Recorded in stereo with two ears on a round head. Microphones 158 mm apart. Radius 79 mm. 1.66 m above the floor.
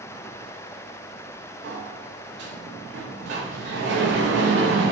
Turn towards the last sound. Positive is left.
turn(degrees=-70)  # may be behind; listen again after turning